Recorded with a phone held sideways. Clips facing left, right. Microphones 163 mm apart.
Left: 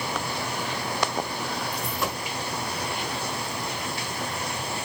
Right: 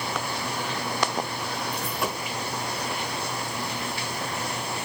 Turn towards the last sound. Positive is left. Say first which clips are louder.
# even
turn(degrees=-5)  # may be behind; listen again after turning